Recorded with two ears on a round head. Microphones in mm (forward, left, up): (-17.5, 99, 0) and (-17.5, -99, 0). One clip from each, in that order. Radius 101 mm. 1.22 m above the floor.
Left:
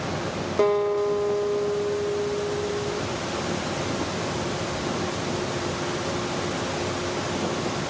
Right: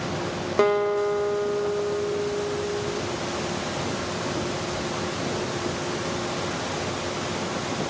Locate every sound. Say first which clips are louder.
0.6 s a guitar: even; 35° right (ahead or behind), 0.6 m